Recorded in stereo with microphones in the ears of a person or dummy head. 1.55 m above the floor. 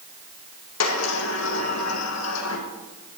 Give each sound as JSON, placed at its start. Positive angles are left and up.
{"t": 0.8, "sound": "a sliding door", "side_deg": 85, "distance_m": 1.9}